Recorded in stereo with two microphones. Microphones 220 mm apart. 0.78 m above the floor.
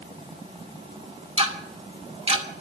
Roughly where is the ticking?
Right.